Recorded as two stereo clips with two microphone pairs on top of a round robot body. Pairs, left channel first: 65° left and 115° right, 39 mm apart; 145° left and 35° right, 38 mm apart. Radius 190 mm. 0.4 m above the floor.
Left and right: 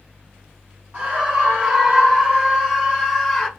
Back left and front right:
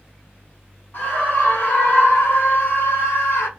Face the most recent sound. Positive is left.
turn(degrees=155)